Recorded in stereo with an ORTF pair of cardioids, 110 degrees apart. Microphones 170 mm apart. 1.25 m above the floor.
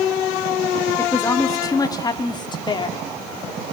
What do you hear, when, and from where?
1.0 s a woman speaking: 15° left, 3 m; by 3.0 s 30° left, 4 m